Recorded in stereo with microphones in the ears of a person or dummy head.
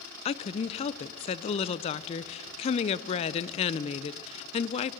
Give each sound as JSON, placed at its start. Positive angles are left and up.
{"t": 0.2, "sound": "a woman speaking", "side_deg": 30, "distance_m": 0.7}